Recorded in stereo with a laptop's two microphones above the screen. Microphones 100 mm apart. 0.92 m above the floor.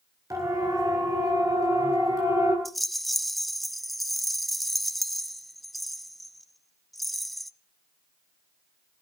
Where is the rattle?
Centre (ahead or behind), 0.9 m.